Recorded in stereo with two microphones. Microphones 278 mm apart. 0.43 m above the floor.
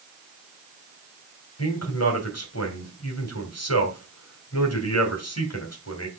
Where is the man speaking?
65° left (ahead or behind), 2.5 m.